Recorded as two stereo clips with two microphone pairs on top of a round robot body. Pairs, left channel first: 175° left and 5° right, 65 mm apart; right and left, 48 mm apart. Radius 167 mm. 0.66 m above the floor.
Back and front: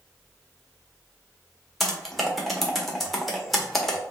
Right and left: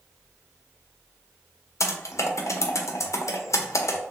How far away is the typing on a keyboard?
About 0.7 m.